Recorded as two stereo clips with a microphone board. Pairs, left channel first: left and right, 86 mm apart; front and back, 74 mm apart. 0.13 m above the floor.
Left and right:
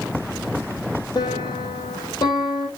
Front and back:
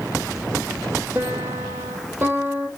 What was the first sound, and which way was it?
A piano, 125° left.